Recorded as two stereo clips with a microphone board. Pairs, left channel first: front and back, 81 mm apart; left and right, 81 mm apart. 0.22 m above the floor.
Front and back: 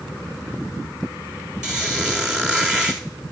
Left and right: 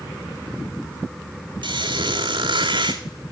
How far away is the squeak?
About 1.3 m.